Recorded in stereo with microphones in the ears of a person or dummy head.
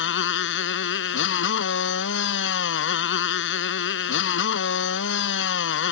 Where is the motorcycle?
75° left (ahead or behind).